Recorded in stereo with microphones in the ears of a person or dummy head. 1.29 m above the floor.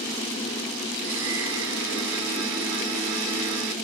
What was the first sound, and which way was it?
A blender, 70° right (ahead or behind).